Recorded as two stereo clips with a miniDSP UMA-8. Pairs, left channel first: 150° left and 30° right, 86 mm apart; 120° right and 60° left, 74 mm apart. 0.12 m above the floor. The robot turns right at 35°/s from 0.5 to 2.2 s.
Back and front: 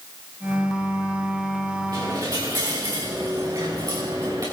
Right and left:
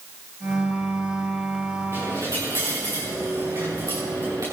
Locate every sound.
1.9 s a dropped coin: 10° left, 5.5 m; by 4.4 s 15° left, 5.5 m